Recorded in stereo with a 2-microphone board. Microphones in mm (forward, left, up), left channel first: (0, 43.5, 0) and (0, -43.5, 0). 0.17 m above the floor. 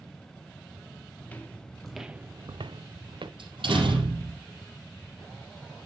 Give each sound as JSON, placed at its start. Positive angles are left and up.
{"t": 1.2, "sound": "footsteps", "side_deg": 20, "distance_m": 1.6}
{"t": 3.4, "sound": "a door slam", "side_deg": -75, "distance_m": 4.0}